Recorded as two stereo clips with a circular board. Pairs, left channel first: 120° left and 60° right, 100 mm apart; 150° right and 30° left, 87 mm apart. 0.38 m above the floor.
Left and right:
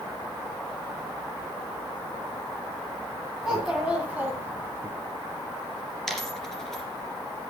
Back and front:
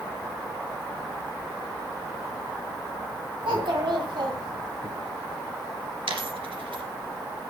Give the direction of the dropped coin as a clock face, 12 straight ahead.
11 o'clock.